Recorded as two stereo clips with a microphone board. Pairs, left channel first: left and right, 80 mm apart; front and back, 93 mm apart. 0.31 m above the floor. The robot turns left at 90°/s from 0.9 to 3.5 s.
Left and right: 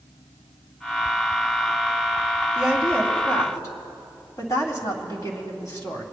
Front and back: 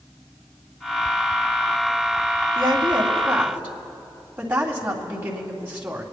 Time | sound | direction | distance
2.5 | a woman speaking | 160° right | 2.5 m